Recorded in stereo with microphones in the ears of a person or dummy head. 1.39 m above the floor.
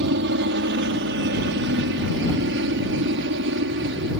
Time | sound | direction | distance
0.0 | a helicopter | 65° right (ahead or behind) | ?